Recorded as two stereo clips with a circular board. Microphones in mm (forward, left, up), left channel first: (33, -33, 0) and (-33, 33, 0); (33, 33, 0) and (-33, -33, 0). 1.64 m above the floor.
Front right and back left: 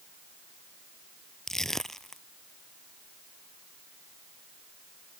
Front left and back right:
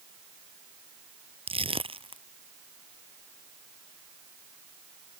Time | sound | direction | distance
1.5 | crushing | 130° right | ?